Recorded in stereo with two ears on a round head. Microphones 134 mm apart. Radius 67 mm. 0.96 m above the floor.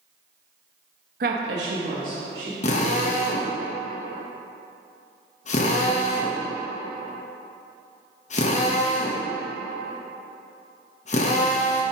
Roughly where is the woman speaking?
Right.